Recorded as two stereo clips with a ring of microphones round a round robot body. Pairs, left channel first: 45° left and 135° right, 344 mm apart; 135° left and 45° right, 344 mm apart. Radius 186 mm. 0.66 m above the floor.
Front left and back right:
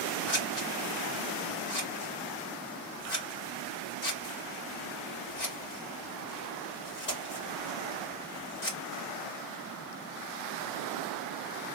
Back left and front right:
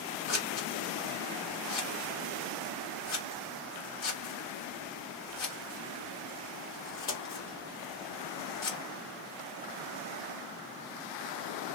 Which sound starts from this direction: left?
Scissors, at 0.3 s.